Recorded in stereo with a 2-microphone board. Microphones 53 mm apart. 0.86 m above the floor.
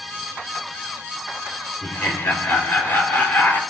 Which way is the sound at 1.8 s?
45° left (ahead or behind).